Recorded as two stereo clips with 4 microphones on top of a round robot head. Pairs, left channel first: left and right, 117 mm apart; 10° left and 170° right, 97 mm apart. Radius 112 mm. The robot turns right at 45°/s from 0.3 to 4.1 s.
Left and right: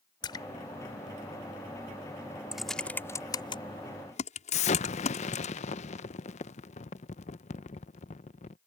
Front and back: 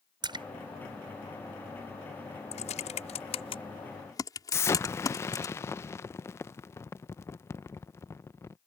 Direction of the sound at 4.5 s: 75° left.